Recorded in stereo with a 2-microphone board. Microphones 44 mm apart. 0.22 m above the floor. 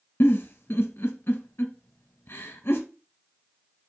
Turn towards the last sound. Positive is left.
turn(degrees=60)  # may be behind; listen again after turning